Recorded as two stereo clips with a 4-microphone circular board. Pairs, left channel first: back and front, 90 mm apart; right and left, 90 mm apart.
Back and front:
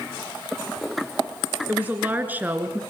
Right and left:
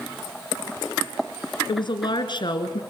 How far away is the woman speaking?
About 3 m.